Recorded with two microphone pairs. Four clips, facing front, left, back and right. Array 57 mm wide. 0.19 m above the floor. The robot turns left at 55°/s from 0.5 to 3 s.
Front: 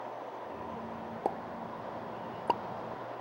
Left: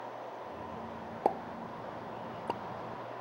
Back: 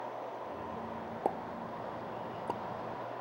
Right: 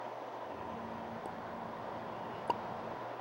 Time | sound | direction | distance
1.2 | a pop | 75° left | ?